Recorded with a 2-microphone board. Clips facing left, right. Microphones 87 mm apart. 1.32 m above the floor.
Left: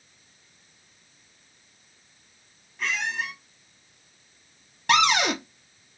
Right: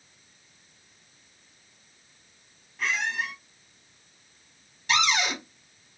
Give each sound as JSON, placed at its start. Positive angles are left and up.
{"t": 2.8, "sound": "a squeak", "side_deg": -5, "distance_m": 1.4}
{"t": 4.9, "sound": "a cupboard door", "side_deg": 60, "distance_m": 0.9}